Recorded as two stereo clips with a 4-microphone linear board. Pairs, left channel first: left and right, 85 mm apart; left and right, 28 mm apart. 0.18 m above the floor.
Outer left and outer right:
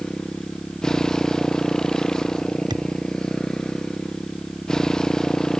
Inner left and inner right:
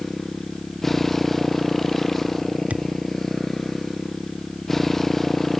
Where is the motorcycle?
5° left (ahead or behind).